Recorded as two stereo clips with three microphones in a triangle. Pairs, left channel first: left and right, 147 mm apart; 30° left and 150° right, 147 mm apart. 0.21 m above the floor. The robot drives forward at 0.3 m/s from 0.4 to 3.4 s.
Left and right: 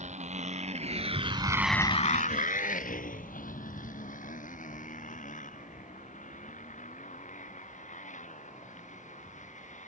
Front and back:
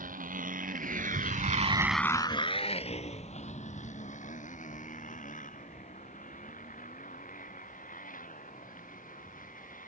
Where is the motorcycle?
130° right; by 9.9 s 55° left.